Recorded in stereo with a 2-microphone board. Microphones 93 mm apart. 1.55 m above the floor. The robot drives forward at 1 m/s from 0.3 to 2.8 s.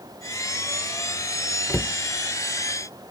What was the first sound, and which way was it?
A cupboard door, 20° left (ahead or behind).